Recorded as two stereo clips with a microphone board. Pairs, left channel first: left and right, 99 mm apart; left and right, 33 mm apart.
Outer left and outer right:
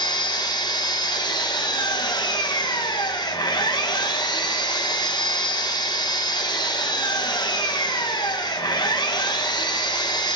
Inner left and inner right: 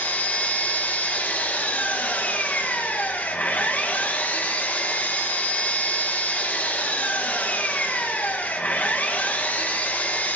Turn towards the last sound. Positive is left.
turn(degrees=45)  # may be behind; listen again after turning